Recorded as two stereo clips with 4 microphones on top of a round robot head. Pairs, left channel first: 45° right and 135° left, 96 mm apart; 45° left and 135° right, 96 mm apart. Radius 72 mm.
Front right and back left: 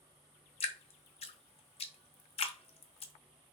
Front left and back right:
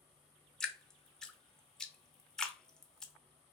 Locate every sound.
0.6 s dripping: 40° right, 0.7 m